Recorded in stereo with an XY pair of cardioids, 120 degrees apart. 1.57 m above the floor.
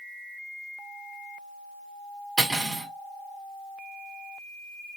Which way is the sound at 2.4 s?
10° right.